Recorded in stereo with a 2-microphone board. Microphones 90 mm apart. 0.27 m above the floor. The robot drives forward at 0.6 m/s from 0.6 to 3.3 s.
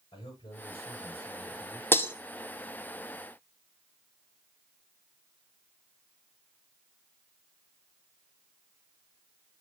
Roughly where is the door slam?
No door slam in this recording.